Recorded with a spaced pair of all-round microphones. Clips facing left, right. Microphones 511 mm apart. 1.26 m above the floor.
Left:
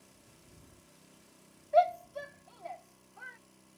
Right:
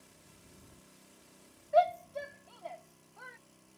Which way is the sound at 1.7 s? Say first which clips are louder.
Left 1 dB; 35° right (ahead or behind).